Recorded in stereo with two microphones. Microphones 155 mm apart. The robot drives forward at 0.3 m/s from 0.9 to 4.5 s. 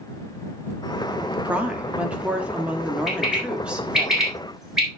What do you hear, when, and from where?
1.4 s a woman speaking: 10° right (ahead or behind), 1.3 m; by 4.1 s 5° right (ahead or behind), 1.7 m
3.1 s a bird: centre (ahead or behind), 4.5 m